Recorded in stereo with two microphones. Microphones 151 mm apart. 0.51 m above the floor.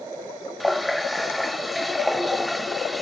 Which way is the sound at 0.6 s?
Centre (ahead or behind).